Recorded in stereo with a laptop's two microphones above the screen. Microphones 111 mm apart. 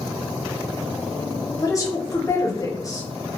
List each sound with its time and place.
1.6 s a woman speaking: 30° left (ahead or behind), 0.6 m